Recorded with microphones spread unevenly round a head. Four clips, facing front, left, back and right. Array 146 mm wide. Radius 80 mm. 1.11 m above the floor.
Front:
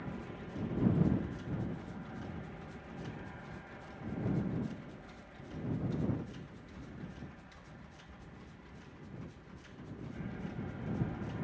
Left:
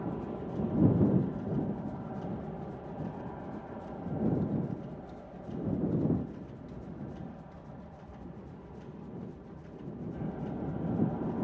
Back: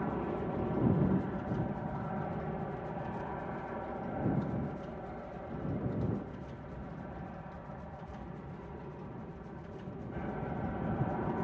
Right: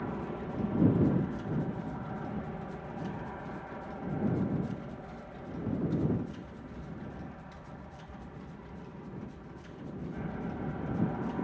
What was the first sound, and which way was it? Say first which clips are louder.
An aircraft: even, back 10 dB; 175° right.